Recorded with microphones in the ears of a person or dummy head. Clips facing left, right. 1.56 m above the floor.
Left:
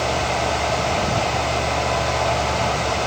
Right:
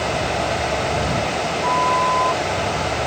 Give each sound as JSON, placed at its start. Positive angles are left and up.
{"t": 1.6, "sound": "a flute", "side_deg": -75}